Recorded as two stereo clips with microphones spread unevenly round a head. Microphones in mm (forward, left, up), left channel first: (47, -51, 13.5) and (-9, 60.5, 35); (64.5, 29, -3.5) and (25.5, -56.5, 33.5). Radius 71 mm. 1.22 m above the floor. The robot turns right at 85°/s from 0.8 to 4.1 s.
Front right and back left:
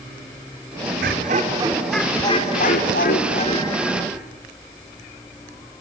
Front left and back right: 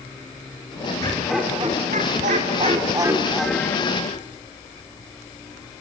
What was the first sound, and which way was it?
Laughter, 130° left.